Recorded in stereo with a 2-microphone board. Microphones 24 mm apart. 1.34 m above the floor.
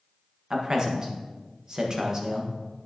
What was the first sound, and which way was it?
A man speaking, 30° right (ahead or behind).